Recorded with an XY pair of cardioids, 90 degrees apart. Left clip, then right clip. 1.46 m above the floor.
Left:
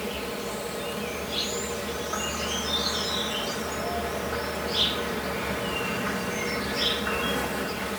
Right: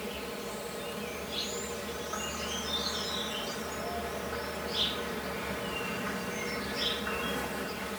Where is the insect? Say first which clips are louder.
Left 6 dB; 45° left.